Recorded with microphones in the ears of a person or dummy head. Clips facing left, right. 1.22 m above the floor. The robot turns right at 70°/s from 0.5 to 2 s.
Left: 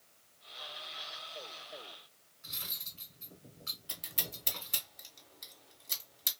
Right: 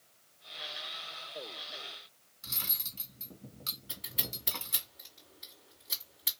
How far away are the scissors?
About 2 m.